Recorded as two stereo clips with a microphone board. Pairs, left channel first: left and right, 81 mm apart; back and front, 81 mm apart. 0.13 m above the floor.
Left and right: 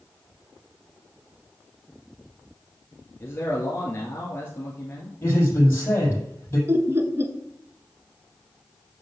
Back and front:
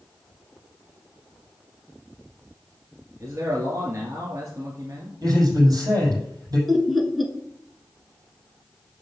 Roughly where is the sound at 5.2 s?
Ahead left.